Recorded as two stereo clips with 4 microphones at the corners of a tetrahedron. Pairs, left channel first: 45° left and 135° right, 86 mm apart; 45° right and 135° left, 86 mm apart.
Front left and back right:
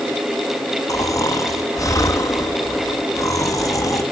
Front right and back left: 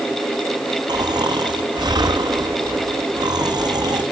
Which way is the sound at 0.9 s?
95° left.